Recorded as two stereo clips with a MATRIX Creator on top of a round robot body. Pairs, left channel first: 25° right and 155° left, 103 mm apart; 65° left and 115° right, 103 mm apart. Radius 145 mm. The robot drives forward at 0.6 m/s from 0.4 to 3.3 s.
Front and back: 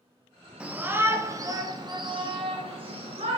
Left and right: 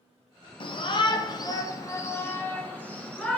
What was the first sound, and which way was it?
A shout, 80° left.